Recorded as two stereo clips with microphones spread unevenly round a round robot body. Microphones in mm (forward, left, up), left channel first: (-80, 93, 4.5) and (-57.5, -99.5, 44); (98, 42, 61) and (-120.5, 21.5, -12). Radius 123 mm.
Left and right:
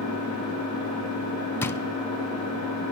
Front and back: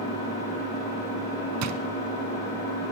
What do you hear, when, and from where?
0.0 s an engine running: 65° right, 7.5 m
1.6 s a drawer: 175° left, 0.7 m